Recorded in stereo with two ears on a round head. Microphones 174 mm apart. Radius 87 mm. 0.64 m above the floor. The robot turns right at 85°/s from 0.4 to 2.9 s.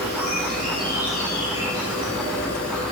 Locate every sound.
0.0 s an insect: 60° right, 2.5 m; by 2.9 s 150° left, 2.5 m